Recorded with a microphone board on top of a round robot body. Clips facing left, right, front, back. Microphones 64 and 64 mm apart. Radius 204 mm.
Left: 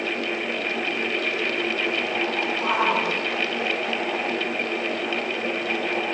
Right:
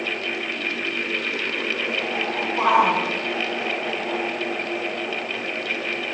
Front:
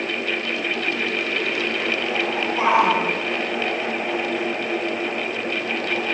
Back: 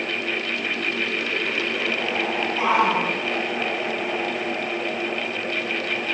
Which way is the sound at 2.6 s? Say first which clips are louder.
Right 6 dB, front 3 dB; 65° right.